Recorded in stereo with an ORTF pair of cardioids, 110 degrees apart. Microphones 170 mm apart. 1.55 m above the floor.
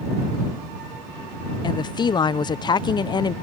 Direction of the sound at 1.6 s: 25° left.